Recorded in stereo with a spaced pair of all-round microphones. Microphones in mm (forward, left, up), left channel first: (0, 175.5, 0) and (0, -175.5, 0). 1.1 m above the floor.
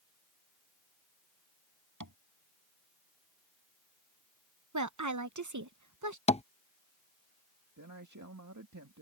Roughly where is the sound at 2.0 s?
Right.